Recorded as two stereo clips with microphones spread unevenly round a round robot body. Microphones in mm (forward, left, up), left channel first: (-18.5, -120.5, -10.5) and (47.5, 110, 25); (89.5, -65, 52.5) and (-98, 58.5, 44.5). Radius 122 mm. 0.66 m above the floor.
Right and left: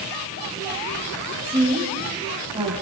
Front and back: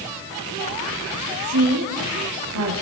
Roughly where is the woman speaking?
Behind left.